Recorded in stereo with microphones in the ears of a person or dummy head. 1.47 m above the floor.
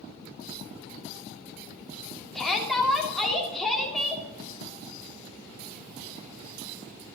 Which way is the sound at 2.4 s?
5° left (ahead or behind).